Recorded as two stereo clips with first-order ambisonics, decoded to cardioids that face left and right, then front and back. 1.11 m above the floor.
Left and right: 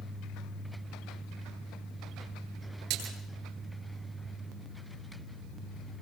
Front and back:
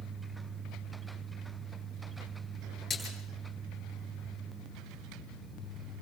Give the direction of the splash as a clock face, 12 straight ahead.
2 o'clock.